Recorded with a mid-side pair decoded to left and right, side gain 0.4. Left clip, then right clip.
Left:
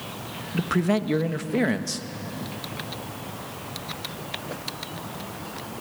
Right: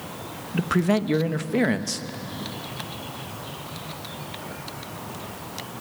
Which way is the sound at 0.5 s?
10° right.